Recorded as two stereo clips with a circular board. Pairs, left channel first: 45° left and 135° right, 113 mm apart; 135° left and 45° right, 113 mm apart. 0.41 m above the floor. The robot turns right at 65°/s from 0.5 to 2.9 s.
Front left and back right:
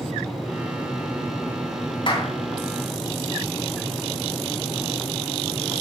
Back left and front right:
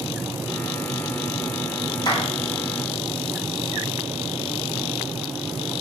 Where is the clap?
85° left, 3.5 m; by 2.3 s 100° left, 3.5 m.